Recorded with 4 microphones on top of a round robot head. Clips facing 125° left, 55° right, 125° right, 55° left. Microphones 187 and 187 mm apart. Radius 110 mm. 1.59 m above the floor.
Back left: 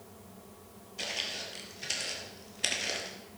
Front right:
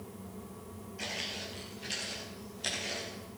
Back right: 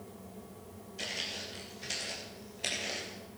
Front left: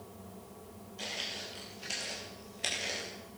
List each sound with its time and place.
1.0 s footsteps: 170° left, 2.5 m; by 3.2 s 135° left, 2.5 m